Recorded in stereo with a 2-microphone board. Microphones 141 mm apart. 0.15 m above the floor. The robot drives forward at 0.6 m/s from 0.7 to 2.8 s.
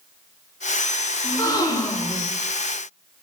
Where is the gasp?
25° left (ahead or behind), 7 m; by 2.3 s 30° left (ahead or behind), 6.5 m.